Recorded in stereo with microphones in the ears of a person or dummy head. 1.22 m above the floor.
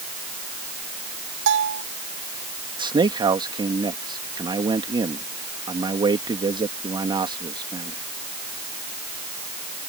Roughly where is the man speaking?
Right.